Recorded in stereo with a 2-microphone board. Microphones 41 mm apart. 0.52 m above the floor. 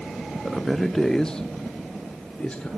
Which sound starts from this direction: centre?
A man speaking, at 0.5 s.